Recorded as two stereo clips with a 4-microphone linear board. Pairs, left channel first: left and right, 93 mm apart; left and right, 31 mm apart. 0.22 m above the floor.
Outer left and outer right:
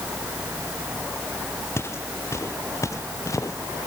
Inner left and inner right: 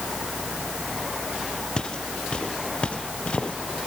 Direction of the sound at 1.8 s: 25° left (ahead or behind).